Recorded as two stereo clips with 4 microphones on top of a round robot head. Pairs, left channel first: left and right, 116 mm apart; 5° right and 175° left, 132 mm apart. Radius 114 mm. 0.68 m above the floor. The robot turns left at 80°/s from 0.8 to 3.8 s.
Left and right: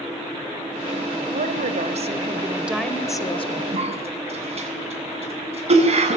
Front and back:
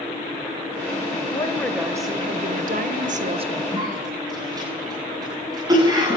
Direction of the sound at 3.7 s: 115° right.